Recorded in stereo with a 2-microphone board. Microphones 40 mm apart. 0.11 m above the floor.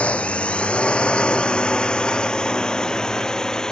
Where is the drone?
35° left (ahead or behind); by 3.7 s 20° left (ahead or behind).